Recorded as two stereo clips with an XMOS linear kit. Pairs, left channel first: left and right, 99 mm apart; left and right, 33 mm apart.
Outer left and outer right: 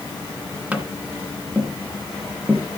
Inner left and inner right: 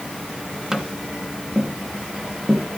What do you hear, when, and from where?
0.7 s tapping: 10° right (ahead or behind), 1.5 m